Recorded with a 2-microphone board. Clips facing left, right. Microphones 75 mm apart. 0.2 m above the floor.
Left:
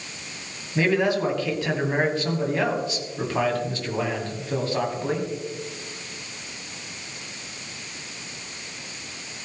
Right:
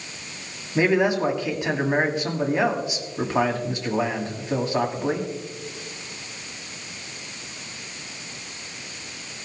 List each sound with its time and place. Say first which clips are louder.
0.8 s a man speaking: right 2 dB; 20° right (ahead or behind), 1.6 m